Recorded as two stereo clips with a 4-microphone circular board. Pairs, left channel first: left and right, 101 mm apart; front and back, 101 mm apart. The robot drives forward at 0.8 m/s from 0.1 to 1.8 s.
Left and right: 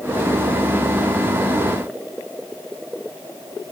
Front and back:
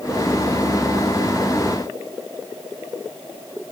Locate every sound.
Only background noise.